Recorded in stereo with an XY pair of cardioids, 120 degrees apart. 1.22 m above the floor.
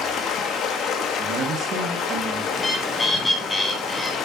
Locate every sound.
0.0 s running water: 65° left, 1.3 m
1.2 s a man speaking: 50° right, 1.4 m
2.5 s a bird: 15° left, 1.4 m